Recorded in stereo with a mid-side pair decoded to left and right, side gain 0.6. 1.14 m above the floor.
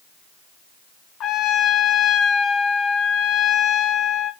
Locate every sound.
1.2 s a trumpet: 50° left, 2.5 m